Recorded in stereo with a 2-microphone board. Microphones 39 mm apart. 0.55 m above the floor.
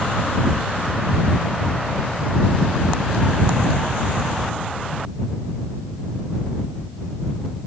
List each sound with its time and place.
Only background noise.